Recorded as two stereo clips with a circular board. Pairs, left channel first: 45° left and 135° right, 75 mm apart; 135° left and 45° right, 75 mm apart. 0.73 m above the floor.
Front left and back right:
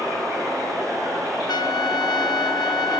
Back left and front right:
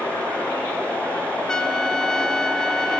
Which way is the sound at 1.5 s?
55° left.